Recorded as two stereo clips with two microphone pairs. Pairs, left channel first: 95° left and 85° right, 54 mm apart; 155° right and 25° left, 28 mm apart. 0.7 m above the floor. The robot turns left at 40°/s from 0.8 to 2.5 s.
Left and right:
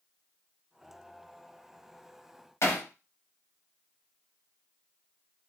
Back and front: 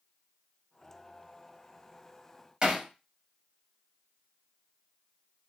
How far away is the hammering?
About 1.4 m.